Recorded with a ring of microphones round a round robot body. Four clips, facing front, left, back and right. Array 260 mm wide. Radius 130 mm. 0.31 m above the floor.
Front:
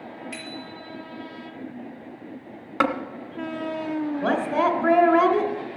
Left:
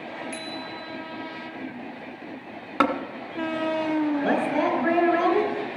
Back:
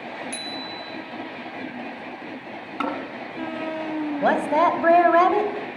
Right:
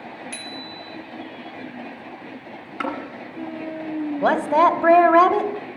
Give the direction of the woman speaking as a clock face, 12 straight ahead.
4 o'clock.